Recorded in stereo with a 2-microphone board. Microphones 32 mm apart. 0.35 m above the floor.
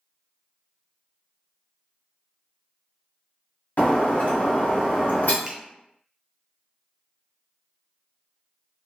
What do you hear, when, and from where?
3.8 s breaking glass: 65° left (ahead or behind), 1.1 m
5.5 s a finger snap: 15° right (ahead or behind), 0.9 m